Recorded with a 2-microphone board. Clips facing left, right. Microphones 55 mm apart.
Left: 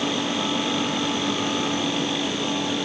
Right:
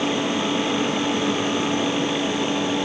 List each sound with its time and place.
Only background noise.